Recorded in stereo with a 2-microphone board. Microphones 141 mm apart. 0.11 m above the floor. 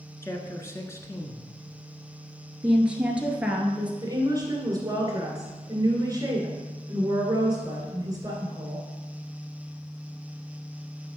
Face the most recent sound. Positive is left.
turn(degrees=-25)  # may be behind; listen again after turning